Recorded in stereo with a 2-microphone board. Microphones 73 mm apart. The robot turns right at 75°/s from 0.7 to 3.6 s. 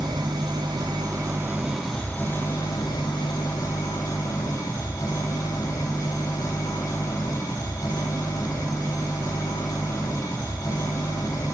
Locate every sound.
0.0 s an engine running: 90° right, 3 m; by 11.6 s 130° left, 3 m